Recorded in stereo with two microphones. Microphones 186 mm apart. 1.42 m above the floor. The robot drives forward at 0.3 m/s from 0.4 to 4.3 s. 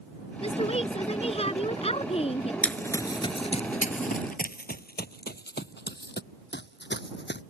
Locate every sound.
0.4 s a woman speaking: 30° left (ahead or behind); by 2.5 s 35° left (ahead or behind)
2.6 s running footsteps: 5° left (ahead or behind); by 7.4 s 70° left (ahead or behind)